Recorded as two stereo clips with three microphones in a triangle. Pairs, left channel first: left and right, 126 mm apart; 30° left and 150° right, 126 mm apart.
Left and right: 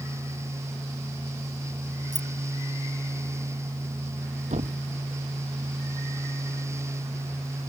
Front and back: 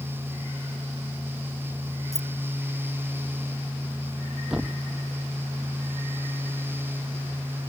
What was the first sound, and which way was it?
Keys jangling, 35° right.